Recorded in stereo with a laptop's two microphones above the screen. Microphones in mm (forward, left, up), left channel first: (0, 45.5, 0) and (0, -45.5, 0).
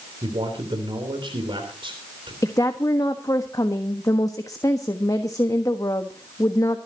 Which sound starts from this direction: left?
A woman speaking, at 2.4 s.